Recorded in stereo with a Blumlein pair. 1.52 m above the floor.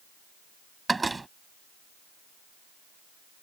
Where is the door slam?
10° right.